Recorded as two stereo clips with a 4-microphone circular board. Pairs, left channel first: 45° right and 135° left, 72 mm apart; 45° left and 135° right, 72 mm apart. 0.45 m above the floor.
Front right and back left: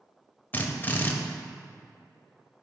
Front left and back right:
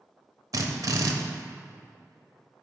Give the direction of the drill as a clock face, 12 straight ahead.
3 o'clock.